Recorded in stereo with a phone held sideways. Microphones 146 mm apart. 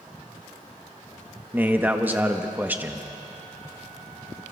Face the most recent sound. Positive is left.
turn(degrees=-15)  # may be behind; listen again after turning